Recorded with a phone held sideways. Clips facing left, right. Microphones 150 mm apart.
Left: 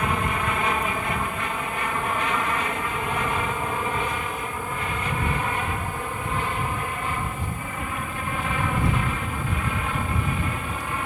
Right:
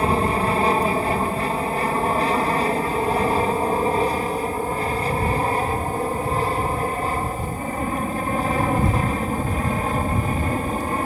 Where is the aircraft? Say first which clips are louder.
Right 6 dB; 35° right (ahead or behind); by 11.1 s 40° right (ahead or behind).